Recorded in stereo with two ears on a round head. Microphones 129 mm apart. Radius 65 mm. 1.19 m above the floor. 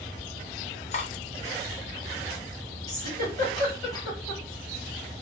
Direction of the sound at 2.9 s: 20° left (ahead or behind).